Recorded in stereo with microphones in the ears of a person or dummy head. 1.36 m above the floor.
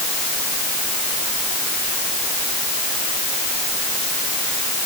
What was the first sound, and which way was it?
Only background noise.